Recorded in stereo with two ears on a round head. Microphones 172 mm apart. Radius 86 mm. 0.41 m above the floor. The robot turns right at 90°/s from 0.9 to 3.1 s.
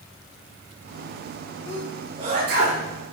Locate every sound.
1.7 s a sneeze: 20° left (ahead or behind), 6.5 m; by 2.8 s 80° right, 6.5 m